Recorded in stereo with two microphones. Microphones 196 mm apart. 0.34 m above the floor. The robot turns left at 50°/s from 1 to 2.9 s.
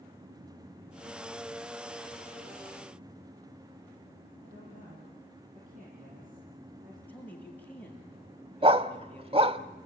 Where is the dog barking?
30° right (ahead or behind), 0.8 m.